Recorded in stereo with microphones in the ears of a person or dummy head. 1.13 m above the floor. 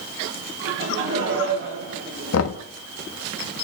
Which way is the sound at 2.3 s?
80° left.